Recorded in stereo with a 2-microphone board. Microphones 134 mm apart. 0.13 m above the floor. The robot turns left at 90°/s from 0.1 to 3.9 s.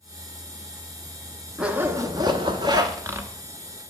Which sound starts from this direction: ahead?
A zipper, at 1.6 s.